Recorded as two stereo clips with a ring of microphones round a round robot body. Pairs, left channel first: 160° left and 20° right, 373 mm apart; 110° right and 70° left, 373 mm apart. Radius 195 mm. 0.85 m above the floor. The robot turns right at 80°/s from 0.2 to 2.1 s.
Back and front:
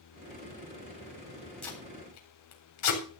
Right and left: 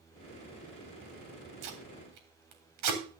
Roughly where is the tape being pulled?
Left.